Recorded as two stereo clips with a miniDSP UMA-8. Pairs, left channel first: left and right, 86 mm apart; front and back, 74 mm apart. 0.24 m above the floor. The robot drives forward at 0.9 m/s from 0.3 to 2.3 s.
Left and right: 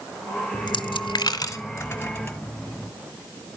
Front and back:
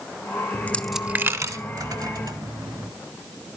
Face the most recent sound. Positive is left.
turn(degrees=160)